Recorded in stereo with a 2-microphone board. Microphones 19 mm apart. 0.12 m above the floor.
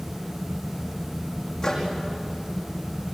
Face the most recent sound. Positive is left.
turn(degrees=30)  # may be behind; listen again after turning